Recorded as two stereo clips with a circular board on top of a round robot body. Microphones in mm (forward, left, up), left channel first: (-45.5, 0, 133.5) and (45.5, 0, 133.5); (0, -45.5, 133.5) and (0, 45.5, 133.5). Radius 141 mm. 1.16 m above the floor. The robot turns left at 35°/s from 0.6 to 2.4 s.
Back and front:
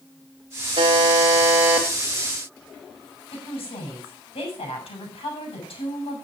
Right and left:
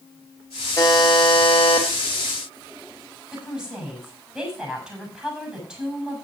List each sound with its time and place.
0.8 s a buzzer: 35° right, 1.3 m; by 1.9 s 70° right, 1.3 m
3.3 s a woman speaking: 170° left, 6.5 m